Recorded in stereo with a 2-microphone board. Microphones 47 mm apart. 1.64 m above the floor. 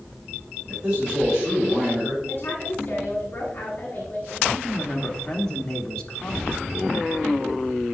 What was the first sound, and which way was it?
A man speaking, 15° right (ahead or behind).